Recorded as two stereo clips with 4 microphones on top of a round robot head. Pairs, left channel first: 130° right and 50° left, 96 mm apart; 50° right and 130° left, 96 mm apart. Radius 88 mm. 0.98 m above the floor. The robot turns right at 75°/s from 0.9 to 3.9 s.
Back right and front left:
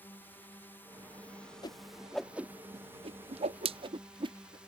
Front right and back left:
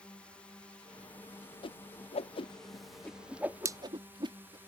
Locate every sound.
0.0 s a drone: 110° right; by 4.7 s 115° left
1.6 s a whoosh: 85° right; by 4.6 s 85° left